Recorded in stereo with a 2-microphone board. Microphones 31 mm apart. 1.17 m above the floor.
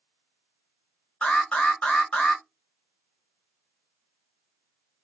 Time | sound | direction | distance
1.2 | an alarm | 45° left (ahead or behind) | 1.4 m